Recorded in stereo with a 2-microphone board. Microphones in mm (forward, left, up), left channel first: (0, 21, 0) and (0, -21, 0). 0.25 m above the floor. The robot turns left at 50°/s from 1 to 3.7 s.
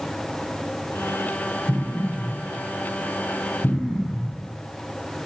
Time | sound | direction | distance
1.7 | an explosion | 45° right (ahead or behind) | 3.5 m